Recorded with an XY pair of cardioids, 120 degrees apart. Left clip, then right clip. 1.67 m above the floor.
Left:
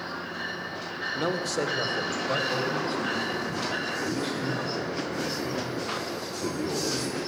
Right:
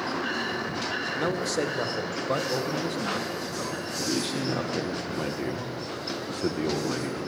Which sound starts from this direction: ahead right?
A man speaking, at 4.0 s.